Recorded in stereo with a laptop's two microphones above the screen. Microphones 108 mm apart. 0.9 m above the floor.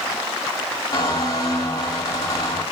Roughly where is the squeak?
Left.